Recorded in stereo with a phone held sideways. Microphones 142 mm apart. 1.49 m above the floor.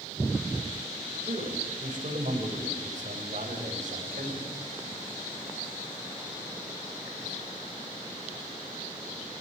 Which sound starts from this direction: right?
A man speaking, at 1.2 s.